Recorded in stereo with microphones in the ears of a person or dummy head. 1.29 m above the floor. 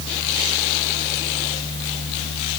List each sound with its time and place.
Only background noise.